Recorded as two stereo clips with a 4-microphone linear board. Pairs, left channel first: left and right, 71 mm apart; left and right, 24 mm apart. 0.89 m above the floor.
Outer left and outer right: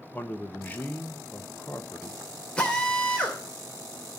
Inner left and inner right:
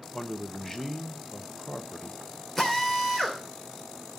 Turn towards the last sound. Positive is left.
turn(degrees=15)  # may be behind; listen again after turning